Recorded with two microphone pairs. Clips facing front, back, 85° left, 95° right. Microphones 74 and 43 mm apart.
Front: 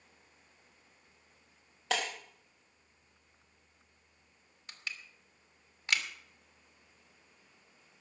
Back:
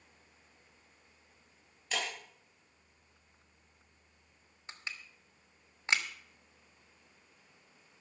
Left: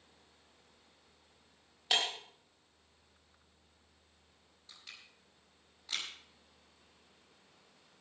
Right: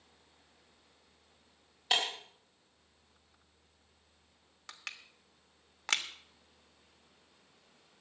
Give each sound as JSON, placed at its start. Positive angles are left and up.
{"t": 1.9, "sound": "breaking glass", "azimuth_deg": -10, "distance_m": 4.0}
{"t": 4.7, "sound": "crushing", "azimuth_deg": -115, "distance_m": 1.4}